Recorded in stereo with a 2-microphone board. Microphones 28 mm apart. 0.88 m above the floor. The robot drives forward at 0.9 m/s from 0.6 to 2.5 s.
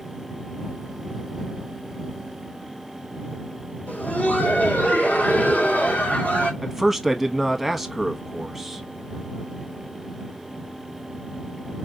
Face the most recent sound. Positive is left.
turn(degrees=0)  # may be behind; listen again after turning